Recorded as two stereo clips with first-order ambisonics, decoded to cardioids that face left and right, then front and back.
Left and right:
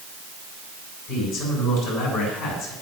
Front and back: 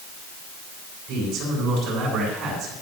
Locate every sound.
1.1 s a man speaking: 130° left, 7.5 m